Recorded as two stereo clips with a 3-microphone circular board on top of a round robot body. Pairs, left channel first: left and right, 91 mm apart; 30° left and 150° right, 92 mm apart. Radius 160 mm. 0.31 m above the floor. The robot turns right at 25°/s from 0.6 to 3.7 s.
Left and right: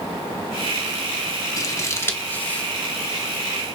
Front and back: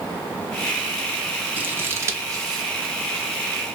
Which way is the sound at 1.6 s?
140° left.